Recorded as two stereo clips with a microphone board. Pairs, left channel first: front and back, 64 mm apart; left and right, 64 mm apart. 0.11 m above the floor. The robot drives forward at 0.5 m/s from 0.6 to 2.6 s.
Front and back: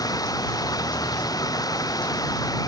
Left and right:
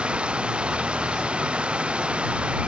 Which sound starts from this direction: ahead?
Running water, at 0.0 s.